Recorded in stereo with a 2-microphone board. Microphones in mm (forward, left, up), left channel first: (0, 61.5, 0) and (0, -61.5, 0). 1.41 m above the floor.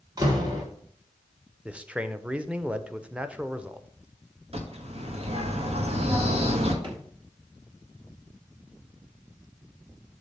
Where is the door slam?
30° right (ahead or behind), 2 m.